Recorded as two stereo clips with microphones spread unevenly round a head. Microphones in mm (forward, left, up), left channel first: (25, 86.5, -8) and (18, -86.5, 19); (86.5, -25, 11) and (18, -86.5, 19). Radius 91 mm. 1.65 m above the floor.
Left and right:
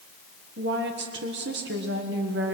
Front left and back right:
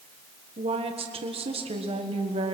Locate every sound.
0.6 s a woman speaking: 130° right, 1.4 m